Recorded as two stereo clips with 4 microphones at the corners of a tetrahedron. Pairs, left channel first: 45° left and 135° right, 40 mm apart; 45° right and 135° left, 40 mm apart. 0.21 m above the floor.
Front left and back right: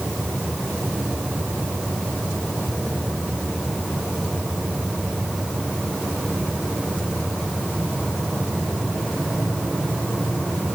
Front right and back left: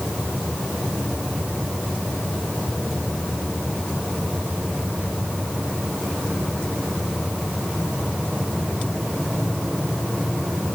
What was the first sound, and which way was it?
Only background noise.